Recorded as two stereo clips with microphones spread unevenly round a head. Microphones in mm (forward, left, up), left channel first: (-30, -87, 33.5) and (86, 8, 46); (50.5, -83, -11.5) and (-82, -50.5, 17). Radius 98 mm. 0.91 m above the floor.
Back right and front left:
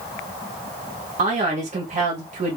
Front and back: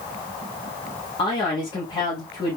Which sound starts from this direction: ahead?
A man speaking, at 1.2 s.